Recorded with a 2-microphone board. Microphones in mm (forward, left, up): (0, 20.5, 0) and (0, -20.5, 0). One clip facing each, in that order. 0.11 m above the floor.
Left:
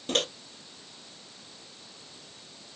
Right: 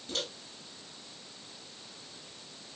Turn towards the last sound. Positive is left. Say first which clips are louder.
# left 8 dB
turn(degrees=60)  # may be behind; listen again after turning